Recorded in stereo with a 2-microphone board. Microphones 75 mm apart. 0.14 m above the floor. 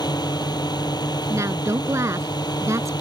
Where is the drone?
60° left (ahead or behind).